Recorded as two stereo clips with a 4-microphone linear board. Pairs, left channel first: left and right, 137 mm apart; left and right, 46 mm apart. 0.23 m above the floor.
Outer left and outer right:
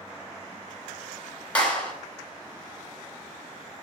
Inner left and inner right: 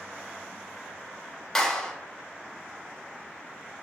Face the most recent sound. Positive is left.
turn(degrees=5)  # may be behind; listen again after turning